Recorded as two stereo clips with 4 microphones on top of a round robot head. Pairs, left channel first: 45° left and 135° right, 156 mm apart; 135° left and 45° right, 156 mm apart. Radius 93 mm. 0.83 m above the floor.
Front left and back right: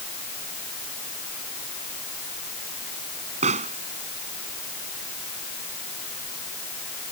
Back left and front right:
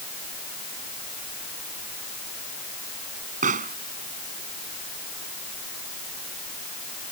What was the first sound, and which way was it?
A pop, 85° right.